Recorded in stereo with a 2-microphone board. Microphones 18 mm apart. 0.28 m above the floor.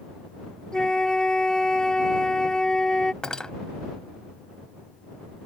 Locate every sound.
0.7 s a flute: 40° left (ahead or behind)
3.2 s cutlery clinking: 45° left (ahead or behind)